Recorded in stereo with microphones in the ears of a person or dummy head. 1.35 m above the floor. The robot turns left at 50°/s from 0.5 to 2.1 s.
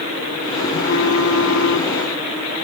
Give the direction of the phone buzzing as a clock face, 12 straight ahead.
8 o'clock.